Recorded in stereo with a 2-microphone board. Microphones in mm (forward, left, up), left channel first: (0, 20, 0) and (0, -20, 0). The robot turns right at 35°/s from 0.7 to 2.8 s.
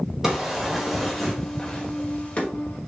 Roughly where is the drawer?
Centre.